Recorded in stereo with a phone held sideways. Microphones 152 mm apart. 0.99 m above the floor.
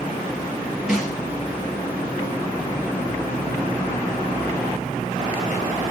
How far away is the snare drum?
About 4 m.